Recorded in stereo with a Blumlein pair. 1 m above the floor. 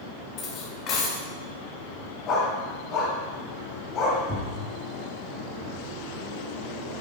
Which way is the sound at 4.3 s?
Straight ahead.